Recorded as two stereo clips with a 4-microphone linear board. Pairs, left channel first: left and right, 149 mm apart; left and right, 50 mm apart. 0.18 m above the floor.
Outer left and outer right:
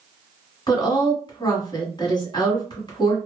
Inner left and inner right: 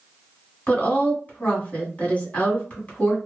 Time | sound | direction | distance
0.7 | a woman speaking | 30° left (ahead or behind) | 1.2 m